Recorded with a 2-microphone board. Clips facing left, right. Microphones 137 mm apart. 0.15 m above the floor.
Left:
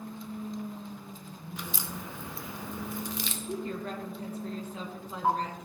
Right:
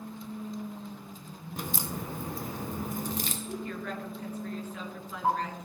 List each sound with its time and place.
1.6 s a crack: 45° right (ahead or behind), 0.9 m
3.5 s a woman speaking: 30° left (ahead or behind), 1.8 m